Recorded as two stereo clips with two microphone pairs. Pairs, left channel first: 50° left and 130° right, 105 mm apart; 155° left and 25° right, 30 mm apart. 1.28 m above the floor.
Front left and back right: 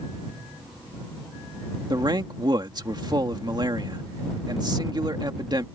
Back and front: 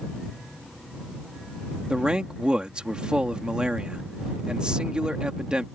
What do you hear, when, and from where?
1.9 s a man speaking: 85° right